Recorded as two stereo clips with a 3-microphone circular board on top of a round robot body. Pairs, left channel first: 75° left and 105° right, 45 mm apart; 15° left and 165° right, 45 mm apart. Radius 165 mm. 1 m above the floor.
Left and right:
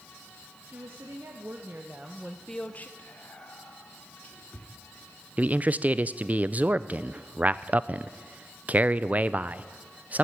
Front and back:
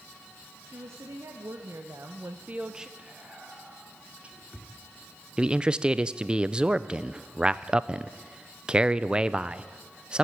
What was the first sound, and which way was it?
A woman speaking, 140° right.